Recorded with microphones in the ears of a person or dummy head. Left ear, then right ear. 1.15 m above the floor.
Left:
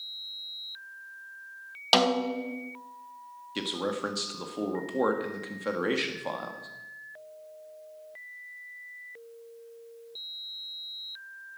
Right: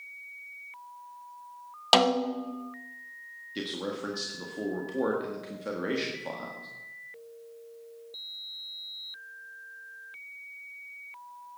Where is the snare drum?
15° right (ahead or behind), 0.6 m.